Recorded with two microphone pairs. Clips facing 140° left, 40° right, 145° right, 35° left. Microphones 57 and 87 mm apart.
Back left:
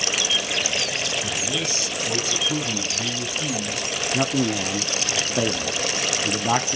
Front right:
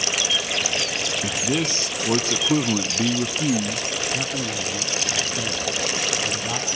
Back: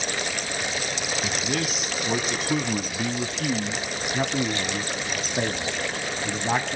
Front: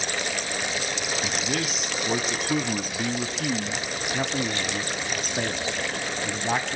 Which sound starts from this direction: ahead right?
A man speaking, at 1.2 s.